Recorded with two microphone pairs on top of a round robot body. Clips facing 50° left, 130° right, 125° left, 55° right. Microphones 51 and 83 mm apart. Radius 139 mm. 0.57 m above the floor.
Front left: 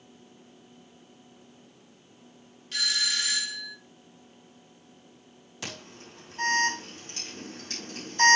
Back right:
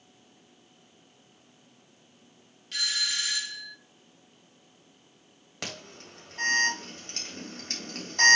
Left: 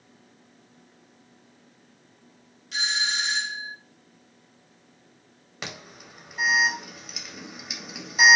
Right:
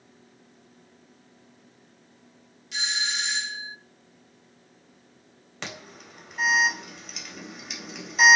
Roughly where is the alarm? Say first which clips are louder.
Back right 1 dB, even; behind right.